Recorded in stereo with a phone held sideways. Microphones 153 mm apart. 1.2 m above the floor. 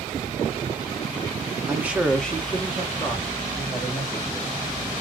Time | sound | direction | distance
1.7 | a man speaking | 15° right (ahead or behind) | 1.0 m